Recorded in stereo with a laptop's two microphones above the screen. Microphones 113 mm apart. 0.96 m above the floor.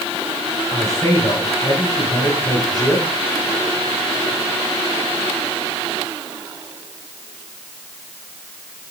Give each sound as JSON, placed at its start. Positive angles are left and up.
{"t": 0.7, "sound": "a man speaking", "side_deg": 30, "distance_m": 8.0}